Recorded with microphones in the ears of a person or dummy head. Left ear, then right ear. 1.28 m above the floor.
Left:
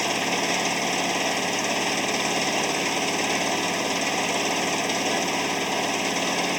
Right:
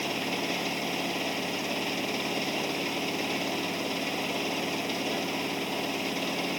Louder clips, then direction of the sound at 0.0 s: Left 7 dB; 50° left (ahead or behind).